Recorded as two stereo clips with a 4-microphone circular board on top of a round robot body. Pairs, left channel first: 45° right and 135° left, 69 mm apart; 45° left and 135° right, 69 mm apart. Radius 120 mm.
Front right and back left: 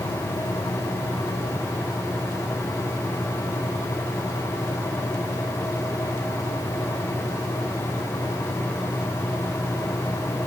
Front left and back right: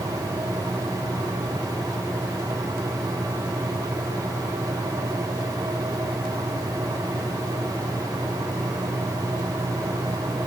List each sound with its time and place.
Only background noise.